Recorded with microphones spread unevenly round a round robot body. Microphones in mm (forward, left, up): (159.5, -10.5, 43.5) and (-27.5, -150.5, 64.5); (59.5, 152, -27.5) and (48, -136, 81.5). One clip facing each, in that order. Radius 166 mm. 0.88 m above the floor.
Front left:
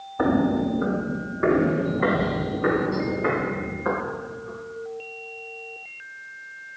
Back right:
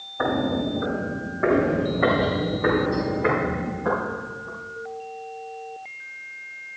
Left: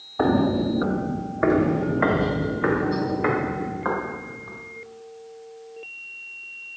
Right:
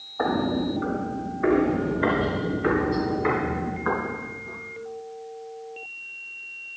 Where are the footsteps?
50° left, 1.2 m; by 4.6 s 115° left, 5 m.